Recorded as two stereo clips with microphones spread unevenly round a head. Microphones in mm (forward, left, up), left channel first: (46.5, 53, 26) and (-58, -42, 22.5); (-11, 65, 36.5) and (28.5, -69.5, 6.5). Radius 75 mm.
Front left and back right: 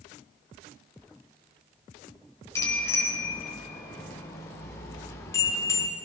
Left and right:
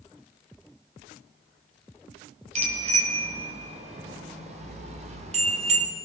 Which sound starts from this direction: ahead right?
A bicycle bell, at 2.5 s.